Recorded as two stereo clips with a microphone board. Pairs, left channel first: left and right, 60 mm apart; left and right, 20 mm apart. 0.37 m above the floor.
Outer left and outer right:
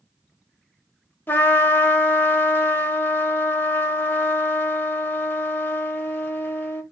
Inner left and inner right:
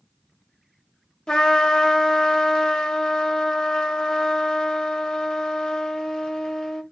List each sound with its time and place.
1.3 s a trumpet: 35° left (ahead or behind), 0.6 m